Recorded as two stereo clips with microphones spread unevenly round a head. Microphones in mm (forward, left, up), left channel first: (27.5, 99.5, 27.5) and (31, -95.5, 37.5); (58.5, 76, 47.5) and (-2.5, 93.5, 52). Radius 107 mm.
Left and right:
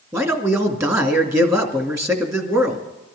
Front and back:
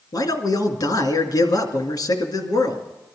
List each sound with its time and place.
0.1 s a man speaking: 10° right, 2.5 m